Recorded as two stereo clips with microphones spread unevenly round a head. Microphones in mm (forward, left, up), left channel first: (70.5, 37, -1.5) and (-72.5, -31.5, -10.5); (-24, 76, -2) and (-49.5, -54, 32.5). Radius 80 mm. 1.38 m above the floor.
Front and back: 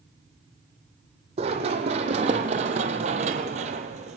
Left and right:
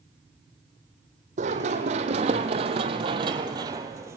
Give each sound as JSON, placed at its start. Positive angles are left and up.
{"t": 1.4, "sound": "running footsteps", "azimuth_deg": -105, "distance_m": 3.0}